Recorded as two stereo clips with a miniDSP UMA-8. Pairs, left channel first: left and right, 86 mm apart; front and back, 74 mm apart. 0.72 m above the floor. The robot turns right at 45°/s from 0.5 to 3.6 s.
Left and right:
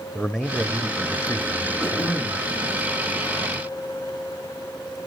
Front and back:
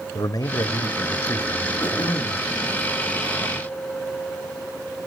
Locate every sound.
0.1 s a man speaking: straight ahead, 1.1 m; by 2.1 s 75° left, 1.1 m
1.8 s throat clearing: 10° right, 5 m; by 2.5 s 20° left, 5 m